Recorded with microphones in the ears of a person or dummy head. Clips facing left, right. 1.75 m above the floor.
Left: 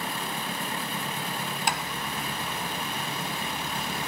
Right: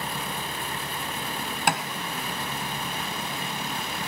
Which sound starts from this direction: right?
Tapping, at 1.7 s.